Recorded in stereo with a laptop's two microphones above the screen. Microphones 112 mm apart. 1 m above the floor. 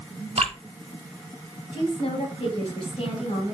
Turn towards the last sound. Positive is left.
turn(degrees=75)  # may be behind; listen again after turning